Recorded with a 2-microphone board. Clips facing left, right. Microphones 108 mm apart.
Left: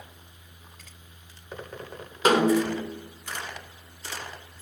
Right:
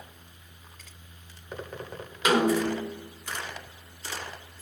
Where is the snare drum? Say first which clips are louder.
Left 2 dB; 35° left (ahead or behind), 1.8 m.